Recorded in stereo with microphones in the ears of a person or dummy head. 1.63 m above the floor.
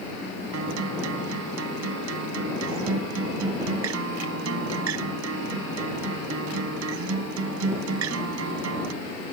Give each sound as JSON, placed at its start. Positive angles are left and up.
{"t": 0.5, "sound": "a guitar", "side_deg": -70}